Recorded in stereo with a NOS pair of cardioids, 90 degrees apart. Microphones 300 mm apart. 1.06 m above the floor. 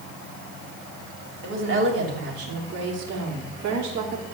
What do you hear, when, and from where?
1.4 s a woman speaking: 40° right, 3.5 m; by 4.2 s 80° right, 3 m